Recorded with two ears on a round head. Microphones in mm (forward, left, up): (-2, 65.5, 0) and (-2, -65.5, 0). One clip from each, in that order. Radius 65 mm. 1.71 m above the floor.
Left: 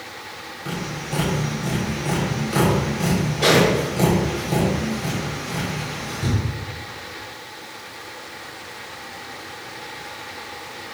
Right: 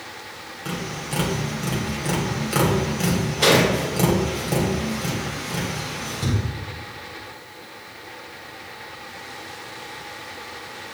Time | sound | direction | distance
0.7 | tapping | 35° right (ahead or behind) | 3.5 m